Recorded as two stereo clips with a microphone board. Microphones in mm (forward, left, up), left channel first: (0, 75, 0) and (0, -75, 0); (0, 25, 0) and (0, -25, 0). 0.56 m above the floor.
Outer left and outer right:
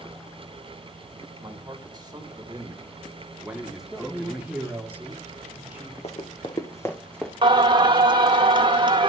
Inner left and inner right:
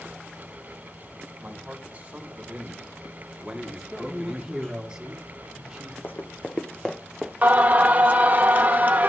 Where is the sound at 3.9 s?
10° right (ahead or behind), 1.4 m.